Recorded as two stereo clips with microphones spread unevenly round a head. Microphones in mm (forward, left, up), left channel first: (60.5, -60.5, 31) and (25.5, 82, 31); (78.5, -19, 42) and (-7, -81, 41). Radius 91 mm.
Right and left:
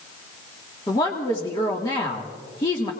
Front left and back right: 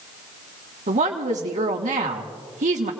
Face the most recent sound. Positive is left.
turn(degrees=-145)